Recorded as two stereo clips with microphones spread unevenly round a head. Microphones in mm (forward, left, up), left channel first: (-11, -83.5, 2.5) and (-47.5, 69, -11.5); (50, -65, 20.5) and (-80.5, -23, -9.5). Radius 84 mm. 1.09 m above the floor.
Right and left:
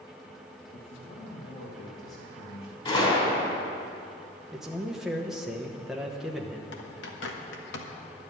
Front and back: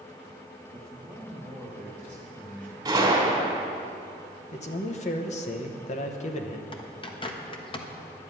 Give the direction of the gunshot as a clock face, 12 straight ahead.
4 o'clock.